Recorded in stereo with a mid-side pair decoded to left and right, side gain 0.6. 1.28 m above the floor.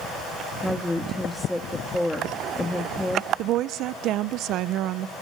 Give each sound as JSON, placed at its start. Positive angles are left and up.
{"t": 0.6, "sound": "a woman speaking", "azimuth_deg": 5, "distance_m": 1.7}
{"t": 3.4, "sound": "a woman speaking", "azimuth_deg": -65, "distance_m": 0.7}